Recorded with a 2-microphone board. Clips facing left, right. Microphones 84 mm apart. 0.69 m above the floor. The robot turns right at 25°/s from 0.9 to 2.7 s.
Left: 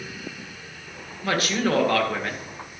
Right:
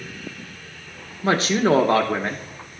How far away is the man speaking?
About 0.8 m.